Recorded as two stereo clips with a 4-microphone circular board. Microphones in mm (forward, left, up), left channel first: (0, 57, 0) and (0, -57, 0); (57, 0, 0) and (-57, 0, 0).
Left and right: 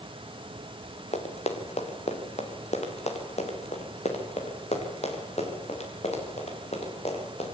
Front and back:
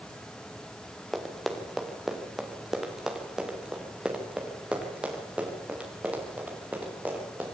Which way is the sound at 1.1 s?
85° left.